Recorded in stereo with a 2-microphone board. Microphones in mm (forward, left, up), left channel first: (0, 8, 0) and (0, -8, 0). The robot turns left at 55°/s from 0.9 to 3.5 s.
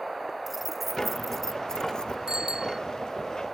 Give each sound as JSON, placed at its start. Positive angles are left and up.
{"t": 0.5, "sound": "keys jangling", "side_deg": -5}
{"t": 2.3, "sound": "a bicycle bell", "side_deg": -65}